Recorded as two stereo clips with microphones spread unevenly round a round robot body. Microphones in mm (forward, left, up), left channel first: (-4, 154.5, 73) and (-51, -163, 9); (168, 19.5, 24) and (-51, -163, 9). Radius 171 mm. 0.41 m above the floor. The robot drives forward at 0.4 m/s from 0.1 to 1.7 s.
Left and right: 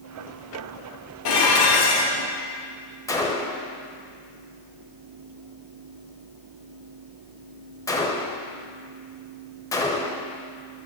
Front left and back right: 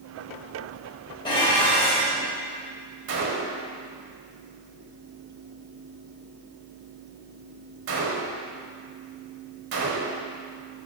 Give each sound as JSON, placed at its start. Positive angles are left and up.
{"t": 1.2, "sound": "dishes clattering", "azimuth_deg": 115, "distance_m": 1.1}
{"t": 3.1, "sound": "a gunshot", "azimuth_deg": 165, "distance_m": 0.6}